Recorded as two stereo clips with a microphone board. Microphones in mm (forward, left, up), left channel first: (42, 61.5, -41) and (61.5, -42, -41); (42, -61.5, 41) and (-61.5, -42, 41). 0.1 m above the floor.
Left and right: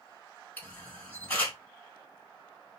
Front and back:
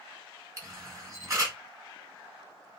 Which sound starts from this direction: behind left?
A camera shutter, at 0.6 s.